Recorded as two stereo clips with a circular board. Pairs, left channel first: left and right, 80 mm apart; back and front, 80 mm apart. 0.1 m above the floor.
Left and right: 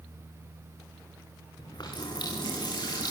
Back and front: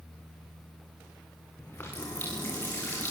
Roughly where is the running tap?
Behind left.